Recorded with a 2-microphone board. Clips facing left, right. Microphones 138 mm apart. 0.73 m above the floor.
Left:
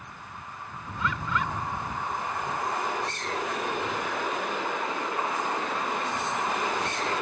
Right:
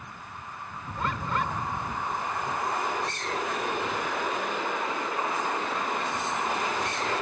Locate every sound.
1.0 s a bird: 45° right (ahead or behind)